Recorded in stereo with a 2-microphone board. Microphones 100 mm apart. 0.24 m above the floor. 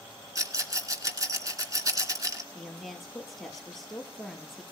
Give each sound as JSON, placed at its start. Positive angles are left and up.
{"t": 0.3, "sound": "a rattle", "side_deg": -35, "distance_m": 2.5}
{"t": 2.5, "sound": "a woman speaking", "side_deg": 0, "distance_m": 5.0}